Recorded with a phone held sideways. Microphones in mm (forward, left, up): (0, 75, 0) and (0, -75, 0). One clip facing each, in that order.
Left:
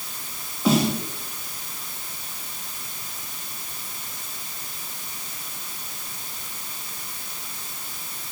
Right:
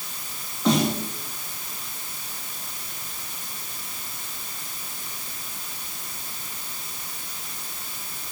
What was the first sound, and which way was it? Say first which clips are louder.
A snare drum: left 1 dB; 5° left (ahead or behind).